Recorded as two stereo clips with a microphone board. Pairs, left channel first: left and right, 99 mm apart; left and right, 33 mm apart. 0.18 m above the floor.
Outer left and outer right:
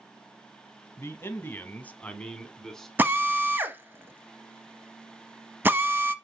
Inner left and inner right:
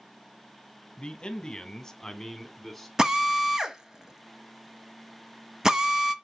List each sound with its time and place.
1.0 s a man speaking: 25° left (ahead or behind), 1.3 m; by 2.9 s 5° left (ahead or behind), 1.7 m
3.0 s a drill: 20° right (ahead or behind), 1.0 m